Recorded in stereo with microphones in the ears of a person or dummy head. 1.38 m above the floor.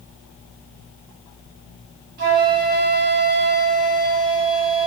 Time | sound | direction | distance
2.2 | a flute | 55° right (ahead or behind) | 0.7 m